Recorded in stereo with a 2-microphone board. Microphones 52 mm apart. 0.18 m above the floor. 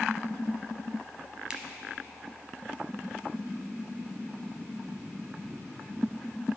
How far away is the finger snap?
About 0.8 m.